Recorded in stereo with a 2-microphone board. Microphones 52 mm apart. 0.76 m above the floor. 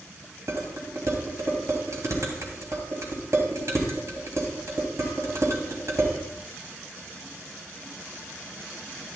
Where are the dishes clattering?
75° right (ahead or behind), 3 m.